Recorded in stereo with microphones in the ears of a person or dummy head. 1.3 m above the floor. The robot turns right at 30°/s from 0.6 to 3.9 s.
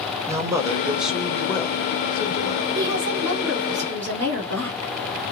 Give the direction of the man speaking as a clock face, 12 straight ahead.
1 o'clock.